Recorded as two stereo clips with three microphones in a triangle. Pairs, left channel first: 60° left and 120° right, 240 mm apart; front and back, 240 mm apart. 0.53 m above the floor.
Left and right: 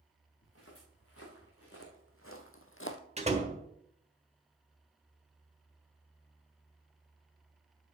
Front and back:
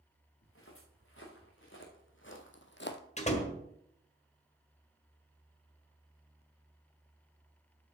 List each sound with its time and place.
0.4 s footsteps: 35° left, 4 m
3.2 s a door slam: 60° right, 1.5 m